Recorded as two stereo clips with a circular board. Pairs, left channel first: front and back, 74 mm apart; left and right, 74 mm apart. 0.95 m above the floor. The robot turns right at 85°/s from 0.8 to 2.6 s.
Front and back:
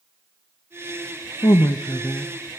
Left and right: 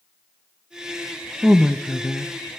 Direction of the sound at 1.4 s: 10° right.